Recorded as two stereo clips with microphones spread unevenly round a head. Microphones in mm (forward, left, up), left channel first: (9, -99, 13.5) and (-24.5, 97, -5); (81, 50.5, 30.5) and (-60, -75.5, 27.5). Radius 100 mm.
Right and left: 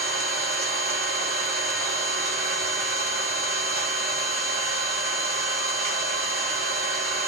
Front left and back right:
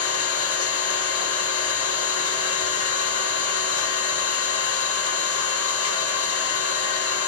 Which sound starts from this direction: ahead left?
An engine running, at 0.0 s.